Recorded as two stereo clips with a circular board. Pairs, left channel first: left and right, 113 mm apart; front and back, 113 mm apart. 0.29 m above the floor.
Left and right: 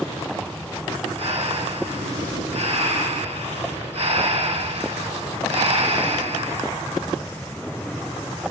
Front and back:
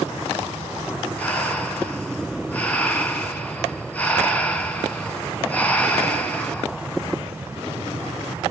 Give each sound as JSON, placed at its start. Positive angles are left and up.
{"t": 1.2, "sound": "breathing", "azimuth_deg": -75, "distance_m": 3.0}